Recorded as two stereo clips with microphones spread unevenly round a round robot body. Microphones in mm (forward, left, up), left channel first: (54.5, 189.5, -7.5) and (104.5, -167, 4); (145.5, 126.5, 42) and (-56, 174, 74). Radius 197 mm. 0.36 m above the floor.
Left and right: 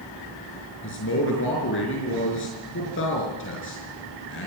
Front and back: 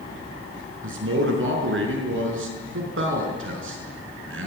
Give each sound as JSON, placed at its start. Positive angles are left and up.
{"t": 0.8, "sound": "a man speaking", "azimuth_deg": 160, "distance_m": 5.0}